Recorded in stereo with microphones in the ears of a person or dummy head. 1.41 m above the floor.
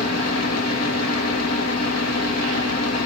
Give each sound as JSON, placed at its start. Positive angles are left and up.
{"t": 0.0, "sound": "a fan", "side_deg": 80, "distance_m": 4.0}